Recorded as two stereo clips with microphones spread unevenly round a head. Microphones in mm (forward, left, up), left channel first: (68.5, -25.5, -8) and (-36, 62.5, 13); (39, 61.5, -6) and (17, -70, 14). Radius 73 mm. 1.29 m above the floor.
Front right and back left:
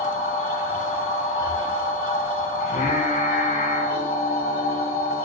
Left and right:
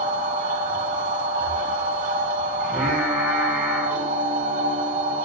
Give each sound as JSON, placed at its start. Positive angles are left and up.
{"t": 0.0, "sound": "a machine running", "azimuth_deg": -95, "distance_m": 2.0}
{"t": 2.6, "sound": "singing", "azimuth_deg": -10, "distance_m": 5.5}